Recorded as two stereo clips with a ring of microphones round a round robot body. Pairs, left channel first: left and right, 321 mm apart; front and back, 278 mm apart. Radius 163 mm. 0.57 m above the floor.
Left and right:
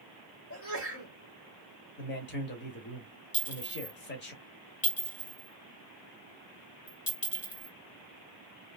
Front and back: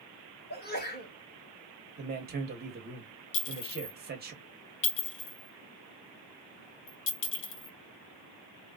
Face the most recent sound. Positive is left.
turn(degrees=20)